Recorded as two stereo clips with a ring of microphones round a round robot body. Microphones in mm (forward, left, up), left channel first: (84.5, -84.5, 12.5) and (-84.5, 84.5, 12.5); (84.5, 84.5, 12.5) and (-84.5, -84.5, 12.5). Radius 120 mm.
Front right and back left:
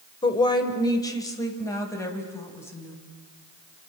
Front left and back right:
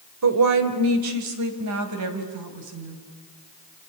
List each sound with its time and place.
0.2 s a woman speaking: 115° right, 2.5 m; by 3.0 s 125° right, 4.5 m